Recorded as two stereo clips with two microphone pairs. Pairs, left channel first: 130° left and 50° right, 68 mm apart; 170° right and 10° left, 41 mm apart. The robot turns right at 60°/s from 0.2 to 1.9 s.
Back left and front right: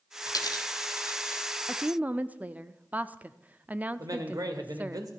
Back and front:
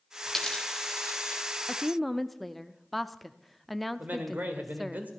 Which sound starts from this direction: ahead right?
A man speaking, at 4.0 s.